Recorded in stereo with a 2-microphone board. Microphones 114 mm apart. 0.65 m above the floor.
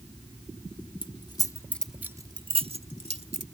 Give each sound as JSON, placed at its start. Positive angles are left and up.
{"t": 1.0, "sound": "keys jangling", "side_deg": 50}